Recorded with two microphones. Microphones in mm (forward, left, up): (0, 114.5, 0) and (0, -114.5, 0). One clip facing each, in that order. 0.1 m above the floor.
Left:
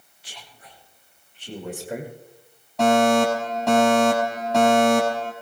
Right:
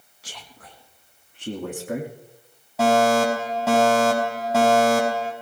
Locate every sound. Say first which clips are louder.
0.2 s a man speaking: right 3 dB; 75° right (ahead or behind), 4 m; by 2.1 s 70° right (ahead or behind), 6 m
2.8 s a fire alarm: left 1 dB; 5° right (ahead or behind), 6 m